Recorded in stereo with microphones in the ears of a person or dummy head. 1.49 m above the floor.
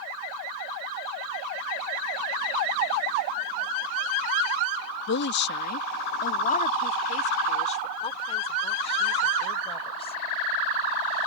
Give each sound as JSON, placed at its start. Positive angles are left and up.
{"t": 5.1, "sound": "a woman speaking", "side_deg": 65}